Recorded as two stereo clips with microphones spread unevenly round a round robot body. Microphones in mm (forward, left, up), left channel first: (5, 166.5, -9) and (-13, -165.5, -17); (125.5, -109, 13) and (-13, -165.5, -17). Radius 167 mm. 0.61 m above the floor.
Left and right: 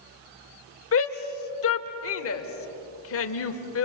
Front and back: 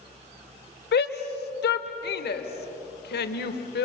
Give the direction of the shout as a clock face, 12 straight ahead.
11 o'clock.